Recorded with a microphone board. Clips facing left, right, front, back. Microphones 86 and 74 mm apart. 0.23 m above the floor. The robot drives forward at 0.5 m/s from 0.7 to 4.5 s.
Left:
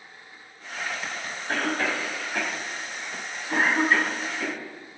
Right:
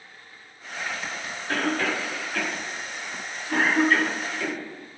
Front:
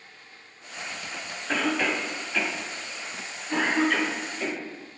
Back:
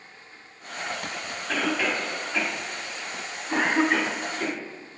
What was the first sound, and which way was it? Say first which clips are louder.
A cough: right 1 dB, even; 65° left.